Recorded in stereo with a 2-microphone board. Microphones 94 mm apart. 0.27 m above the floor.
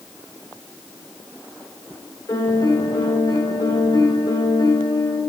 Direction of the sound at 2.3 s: 40° left (ahead or behind).